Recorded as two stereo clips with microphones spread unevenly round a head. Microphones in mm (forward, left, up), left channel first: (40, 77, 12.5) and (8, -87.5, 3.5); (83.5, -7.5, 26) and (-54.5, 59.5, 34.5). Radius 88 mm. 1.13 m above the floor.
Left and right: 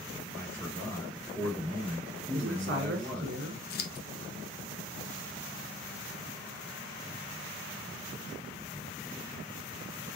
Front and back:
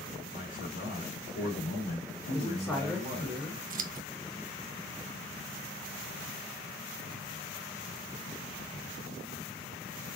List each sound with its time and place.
0.3 s a man speaking: 5° left, 2.5 m
2.3 s a man speaking: 115° right, 1.9 m
3.7 s scissors: 120° left, 0.5 m